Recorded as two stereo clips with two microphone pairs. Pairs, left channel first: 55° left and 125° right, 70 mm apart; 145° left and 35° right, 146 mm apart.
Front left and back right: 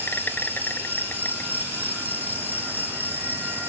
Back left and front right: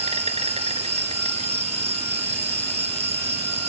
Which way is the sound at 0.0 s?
5° right.